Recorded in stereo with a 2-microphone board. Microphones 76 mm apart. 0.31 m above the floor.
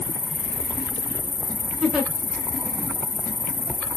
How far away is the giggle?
About 1.1 m.